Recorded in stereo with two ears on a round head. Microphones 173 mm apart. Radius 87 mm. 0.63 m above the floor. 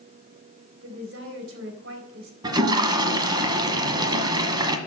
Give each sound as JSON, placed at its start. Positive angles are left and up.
{"t": 0.8, "sound": "a woman speaking", "side_deg": -70, "distance_m": 3.5}
{"t": 2.4, "sound": "a toilet flushing", "side_deg": -25, "distance_m": 1.5}